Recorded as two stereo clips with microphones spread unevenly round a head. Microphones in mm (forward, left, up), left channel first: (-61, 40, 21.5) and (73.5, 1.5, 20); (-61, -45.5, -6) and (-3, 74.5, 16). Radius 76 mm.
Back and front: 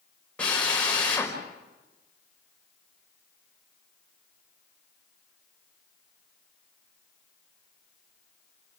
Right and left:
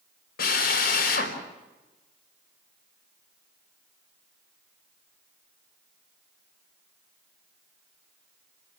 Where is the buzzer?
I don't hear a buzzer.